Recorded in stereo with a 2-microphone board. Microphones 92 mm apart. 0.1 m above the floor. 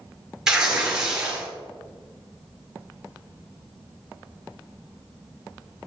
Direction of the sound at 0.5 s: 5° right (ahead or behind).